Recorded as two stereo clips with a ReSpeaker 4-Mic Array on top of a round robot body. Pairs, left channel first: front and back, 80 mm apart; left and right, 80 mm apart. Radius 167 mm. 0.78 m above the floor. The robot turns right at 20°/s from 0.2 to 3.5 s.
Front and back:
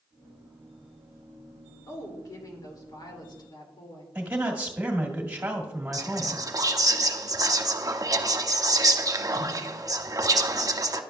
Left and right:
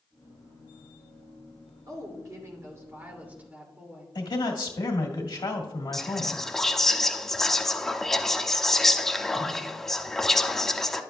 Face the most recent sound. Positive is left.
turn(degrees=175)